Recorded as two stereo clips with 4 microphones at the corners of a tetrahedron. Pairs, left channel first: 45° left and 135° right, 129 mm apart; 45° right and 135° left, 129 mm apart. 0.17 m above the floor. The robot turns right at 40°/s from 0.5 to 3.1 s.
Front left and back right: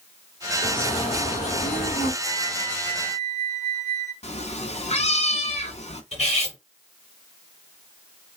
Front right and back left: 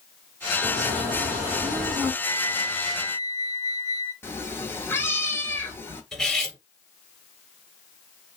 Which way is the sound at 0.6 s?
15° right.